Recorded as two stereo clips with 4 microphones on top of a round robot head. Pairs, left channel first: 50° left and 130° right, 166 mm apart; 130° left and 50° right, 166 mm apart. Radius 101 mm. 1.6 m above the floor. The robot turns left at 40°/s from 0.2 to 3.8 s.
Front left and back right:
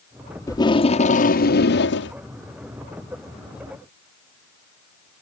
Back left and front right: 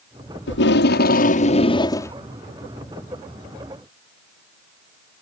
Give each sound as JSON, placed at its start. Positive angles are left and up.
{"t": 0.5, "sound": "tape being pulled", "azimuth_deg": 120}